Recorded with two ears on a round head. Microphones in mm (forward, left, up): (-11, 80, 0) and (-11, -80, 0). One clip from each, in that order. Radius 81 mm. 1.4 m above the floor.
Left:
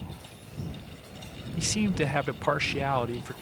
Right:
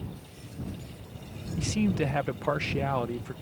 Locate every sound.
1.6 s a man speaking: 30° left (ahead or behind)